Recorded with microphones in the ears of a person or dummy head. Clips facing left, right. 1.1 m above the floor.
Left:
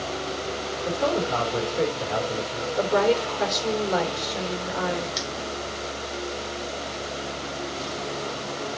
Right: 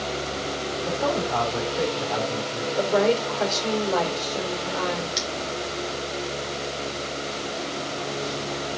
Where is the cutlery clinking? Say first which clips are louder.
Right 1 dB; centre (ahead or behind), 1.2 m.